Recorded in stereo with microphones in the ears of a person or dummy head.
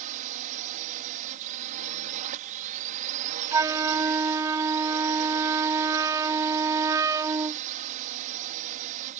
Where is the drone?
40° right (ahead or behind).